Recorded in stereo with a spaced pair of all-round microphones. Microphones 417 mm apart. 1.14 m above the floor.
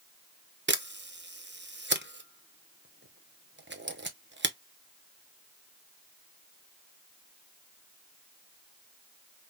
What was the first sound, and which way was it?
A camera shutter, 30° right (ahead or behind).